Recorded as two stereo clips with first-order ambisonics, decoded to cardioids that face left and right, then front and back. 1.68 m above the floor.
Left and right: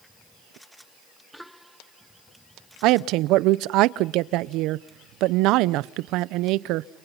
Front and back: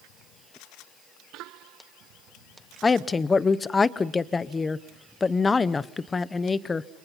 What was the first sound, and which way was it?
A woman speaking, 75° right.